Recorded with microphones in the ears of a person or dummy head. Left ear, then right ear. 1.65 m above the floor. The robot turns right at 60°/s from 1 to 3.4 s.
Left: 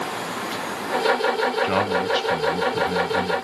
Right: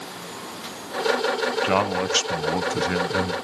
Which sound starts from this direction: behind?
A man speaking, at 1.6 s.